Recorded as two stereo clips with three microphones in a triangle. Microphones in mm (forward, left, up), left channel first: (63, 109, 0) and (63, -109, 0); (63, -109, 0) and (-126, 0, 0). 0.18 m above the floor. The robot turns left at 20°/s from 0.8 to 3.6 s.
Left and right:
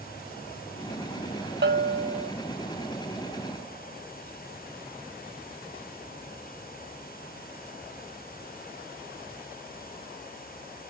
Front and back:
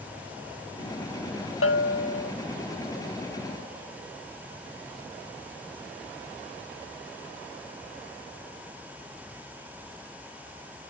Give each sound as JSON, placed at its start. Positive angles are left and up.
{"t": 1.6, "sound": "a bell", "azimuth_deg": -50, "distance_m": 0.6}